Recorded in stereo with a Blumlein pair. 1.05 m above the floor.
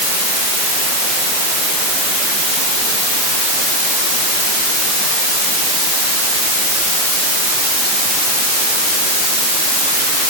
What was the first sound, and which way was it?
Only background noise.